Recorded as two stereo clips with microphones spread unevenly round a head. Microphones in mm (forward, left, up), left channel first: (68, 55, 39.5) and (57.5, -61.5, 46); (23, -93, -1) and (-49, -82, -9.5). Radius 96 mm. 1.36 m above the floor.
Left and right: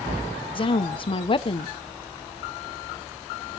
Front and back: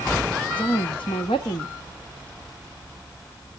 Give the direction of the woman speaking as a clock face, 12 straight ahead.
11 o'clock.